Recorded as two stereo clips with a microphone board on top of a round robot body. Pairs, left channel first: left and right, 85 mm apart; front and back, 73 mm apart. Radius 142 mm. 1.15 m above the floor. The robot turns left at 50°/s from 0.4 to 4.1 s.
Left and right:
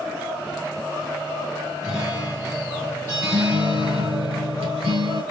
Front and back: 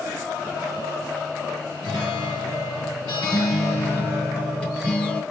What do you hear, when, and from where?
1.8 s a guitar: 40° left, 2.5 m; by 5.2 s 75° right, 2.5 m